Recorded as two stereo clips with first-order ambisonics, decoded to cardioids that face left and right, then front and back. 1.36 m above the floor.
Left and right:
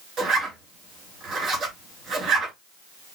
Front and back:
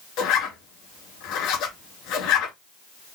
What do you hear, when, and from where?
0.2 s a zipper: 30° right, 3.5 m